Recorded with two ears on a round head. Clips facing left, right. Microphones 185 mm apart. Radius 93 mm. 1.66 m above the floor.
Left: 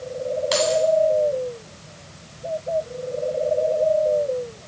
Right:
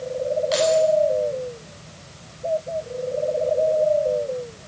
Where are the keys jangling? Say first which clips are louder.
Right 2 dB; 65° left (ahead or behind), 9.5 m.